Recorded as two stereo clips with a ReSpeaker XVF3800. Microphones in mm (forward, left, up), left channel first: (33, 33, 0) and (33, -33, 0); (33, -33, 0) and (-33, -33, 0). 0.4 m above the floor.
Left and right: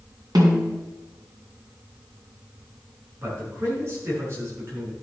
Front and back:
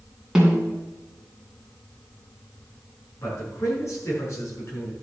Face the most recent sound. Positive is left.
turn(degrees=-40)